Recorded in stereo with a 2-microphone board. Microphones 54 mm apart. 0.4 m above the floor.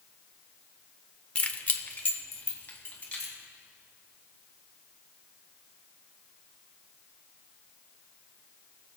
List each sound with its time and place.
1.4 s keys jangling: 20° left (ahead or behind), 0.5 m; by 3.3 s 30° left (ahead or behind), 2.5 m